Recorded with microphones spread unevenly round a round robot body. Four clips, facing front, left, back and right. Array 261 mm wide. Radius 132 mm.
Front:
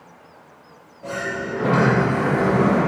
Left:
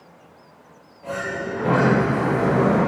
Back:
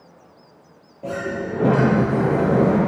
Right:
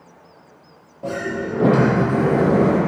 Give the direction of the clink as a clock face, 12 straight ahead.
No clink in this recording.